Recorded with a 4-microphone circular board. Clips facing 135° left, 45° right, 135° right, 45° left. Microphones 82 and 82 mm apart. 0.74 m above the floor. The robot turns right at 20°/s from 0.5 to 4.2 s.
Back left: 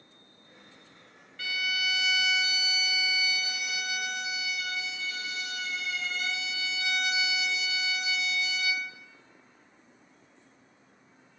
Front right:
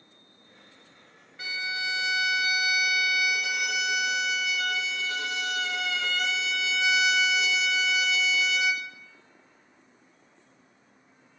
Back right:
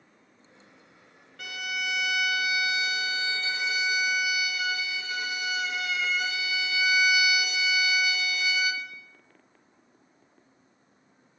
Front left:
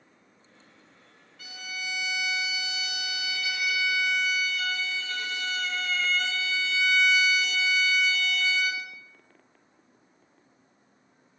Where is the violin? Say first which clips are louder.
Even, back right 6 dB; 115° right, 1.1 m; by 8.9 s 55° right, 1.1 m.